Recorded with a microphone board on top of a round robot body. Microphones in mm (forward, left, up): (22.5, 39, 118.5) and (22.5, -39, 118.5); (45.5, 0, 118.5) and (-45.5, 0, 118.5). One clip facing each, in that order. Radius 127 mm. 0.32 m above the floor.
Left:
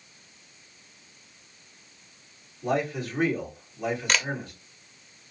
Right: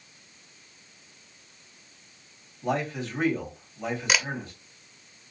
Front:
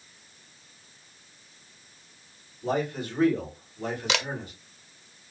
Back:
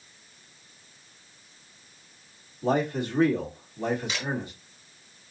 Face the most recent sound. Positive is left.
turn(degrees=-5)